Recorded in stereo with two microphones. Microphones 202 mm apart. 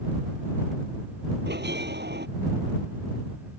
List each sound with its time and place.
1.5 s a bell: 65° right (ahead or behind)